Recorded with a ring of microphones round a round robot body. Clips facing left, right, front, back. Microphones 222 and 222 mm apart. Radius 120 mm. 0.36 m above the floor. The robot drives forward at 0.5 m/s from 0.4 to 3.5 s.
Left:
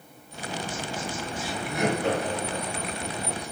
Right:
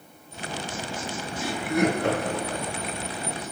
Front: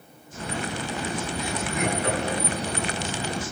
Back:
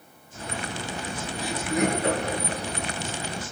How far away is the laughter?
About 6.5 m.